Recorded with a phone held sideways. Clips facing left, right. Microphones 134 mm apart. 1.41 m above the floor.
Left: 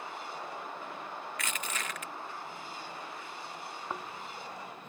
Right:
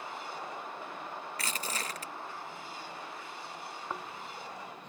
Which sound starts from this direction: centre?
Snoring, at 3.9 s.